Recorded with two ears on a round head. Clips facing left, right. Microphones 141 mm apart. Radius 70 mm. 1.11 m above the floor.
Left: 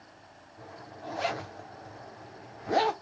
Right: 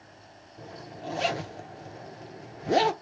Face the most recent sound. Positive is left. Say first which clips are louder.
# right 3 dB
turn(degrees=-30)  # may be behind; listen again after turning